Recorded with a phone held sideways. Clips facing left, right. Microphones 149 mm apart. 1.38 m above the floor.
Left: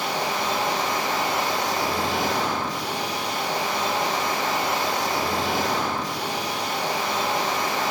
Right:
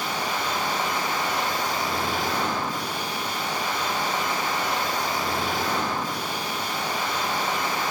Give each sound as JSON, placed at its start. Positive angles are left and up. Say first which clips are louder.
{"t": 0.0, "sound": "a machine running", "louder": "left 2 dB", "side_deg": 80, "distance_m": 2.0}